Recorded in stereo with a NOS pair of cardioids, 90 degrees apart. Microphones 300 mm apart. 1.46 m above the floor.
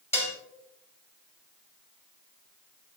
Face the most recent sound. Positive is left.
turn(degrees=10)